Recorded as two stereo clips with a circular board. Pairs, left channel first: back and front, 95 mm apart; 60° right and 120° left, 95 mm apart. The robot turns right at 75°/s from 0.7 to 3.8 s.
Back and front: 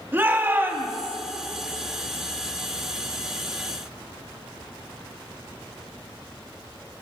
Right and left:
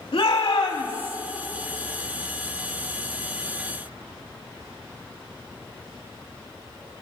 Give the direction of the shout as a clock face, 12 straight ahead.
2 o'clock.